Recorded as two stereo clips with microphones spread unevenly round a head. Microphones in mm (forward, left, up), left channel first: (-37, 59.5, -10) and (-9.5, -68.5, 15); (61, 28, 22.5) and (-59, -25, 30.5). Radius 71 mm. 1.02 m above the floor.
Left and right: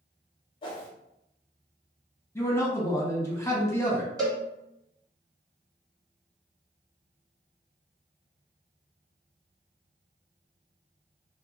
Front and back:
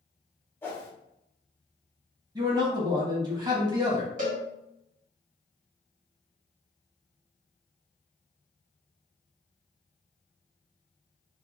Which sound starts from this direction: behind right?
A cowbell, at 4.2 s.